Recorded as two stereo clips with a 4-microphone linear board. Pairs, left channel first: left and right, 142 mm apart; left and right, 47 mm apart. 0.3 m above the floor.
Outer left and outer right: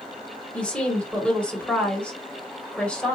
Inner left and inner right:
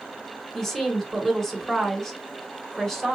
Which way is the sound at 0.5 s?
10° left (ahead or behind).